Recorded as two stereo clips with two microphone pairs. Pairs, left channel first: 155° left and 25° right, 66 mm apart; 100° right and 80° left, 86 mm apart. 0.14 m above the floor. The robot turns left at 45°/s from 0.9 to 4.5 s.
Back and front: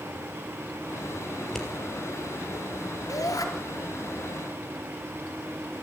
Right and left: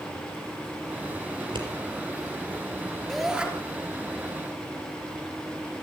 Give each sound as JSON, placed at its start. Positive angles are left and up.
{"t": 1.4, "sound": "scissors", "azimuth_deg": 80, "distance_m": 4.0}
{"t": 3.1, "sound": "a shout", "azimuth_deg": 175, "distance_m": 3.0}